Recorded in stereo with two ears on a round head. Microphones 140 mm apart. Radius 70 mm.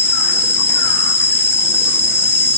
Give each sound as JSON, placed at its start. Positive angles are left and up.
{"t": 0.0, "sound": "an insect", "side_deg": 20, "distance_m": 2.5}